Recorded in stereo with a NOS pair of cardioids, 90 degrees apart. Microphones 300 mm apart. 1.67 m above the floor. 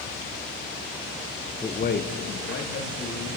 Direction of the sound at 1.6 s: 10° left.